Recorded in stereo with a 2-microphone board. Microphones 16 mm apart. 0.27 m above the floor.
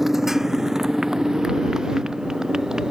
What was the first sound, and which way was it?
A motorcycle, 20° right (ahead or behind).